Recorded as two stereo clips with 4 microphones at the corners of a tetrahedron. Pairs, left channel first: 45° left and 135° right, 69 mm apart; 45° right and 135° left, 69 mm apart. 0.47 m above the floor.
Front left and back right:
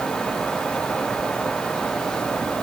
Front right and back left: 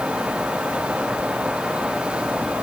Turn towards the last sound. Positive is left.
No sound to turn to.